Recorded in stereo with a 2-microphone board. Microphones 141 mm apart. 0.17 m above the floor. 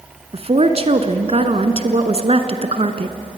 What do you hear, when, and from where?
0.3 s a woman speaking: 45° right (ahead or behind), 1.7 m